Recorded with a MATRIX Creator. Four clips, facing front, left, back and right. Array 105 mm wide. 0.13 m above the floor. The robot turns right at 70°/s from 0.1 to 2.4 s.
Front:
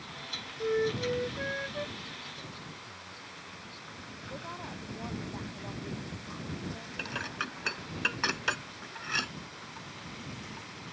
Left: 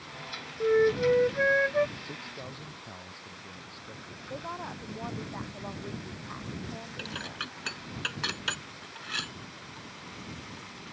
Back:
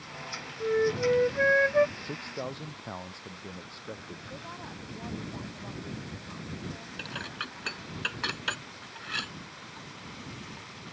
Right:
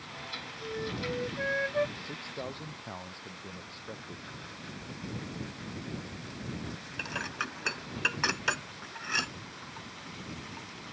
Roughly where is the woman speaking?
Left.